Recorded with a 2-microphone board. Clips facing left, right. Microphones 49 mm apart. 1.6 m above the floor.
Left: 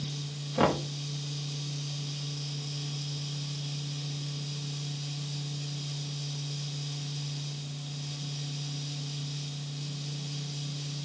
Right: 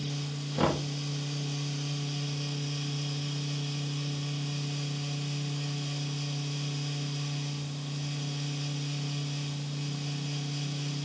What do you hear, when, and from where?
0.6 s knocking: 20° left (ahead or behind), 2.5 m